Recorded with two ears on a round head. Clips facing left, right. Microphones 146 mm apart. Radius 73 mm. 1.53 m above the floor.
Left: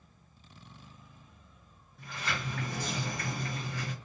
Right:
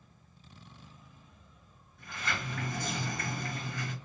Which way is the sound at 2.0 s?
30° left (ahead or behind).